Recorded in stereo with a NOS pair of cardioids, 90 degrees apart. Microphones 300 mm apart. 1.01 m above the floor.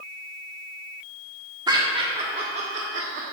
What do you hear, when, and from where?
1.7 s laughter: 15° right, 1.8 m; by 3.2 s 55° right, 1.6 m